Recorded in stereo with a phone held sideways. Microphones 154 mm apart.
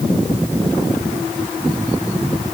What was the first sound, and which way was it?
Only background noise.